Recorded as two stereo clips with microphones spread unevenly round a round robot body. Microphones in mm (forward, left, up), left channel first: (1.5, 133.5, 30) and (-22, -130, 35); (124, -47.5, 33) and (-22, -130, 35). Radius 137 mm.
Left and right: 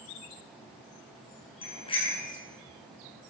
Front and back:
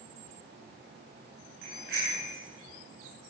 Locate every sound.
1.6 s a bicycle bell: 155° left, 7.5 m